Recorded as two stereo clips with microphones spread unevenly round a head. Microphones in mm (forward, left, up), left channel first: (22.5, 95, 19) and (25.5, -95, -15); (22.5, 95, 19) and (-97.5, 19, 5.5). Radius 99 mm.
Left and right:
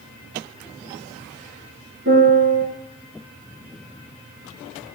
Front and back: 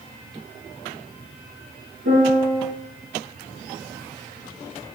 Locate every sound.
2.0 s a piano: 125° right, 4 m